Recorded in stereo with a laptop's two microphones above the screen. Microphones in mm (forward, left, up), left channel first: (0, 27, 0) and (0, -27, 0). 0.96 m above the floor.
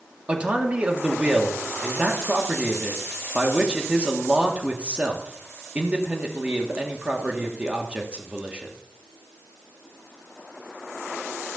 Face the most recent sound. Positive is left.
turn(degrees=-20)  # may be behind; listen again after turning